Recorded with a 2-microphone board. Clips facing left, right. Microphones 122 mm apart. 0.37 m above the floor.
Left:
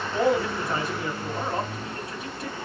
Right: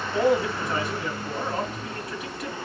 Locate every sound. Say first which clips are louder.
0.1 s a man speaking: right 1 dB; 30° left (ahead or behind), 3 m